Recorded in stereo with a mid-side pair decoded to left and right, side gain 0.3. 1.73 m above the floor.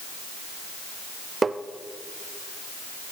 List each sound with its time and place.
1.4 s tapping: 40° right, 0.6 m